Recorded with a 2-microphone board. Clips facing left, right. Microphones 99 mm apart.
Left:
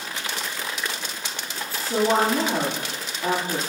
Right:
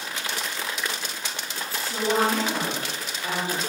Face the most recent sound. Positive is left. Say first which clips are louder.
# left 3 dB
turn(degrees=50)  # may be behind; listen again after turning